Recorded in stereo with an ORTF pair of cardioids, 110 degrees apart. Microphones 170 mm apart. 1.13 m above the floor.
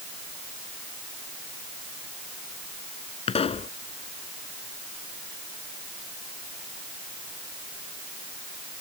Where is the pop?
35° left.